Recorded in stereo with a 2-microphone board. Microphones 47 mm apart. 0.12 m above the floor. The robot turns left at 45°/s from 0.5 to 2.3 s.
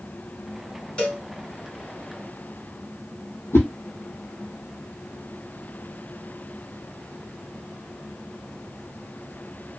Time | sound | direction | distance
1.0 | a cowbell | 25° left (ahead or behind) | 1.7 m
3.5 | a whoosh | 65° left (ahead or behind) | 1.0 m